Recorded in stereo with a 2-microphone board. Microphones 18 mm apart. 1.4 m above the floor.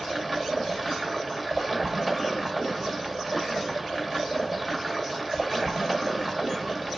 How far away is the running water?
About 1.7 m.